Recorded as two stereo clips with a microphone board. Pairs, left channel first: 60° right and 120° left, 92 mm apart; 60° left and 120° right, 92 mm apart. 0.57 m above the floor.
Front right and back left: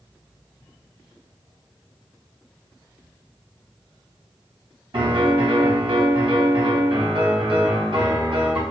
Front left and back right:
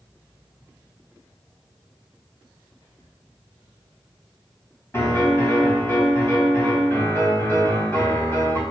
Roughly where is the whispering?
Left.